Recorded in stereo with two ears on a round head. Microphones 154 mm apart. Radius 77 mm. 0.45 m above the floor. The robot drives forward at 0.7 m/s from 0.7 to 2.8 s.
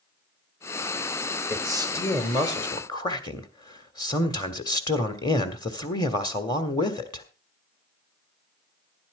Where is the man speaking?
15° left (ahead or behind), 2 m; by 7.3 s 25° left (ahead or behind), 1.6 m.